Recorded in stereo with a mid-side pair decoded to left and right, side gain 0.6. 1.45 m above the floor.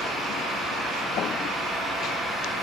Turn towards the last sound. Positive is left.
turn(degrees=-25)